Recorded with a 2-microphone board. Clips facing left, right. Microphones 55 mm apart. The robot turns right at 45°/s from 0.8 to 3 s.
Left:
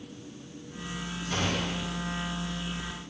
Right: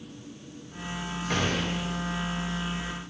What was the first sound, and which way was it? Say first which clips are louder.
A gunshot: right 2 dB; 85° right.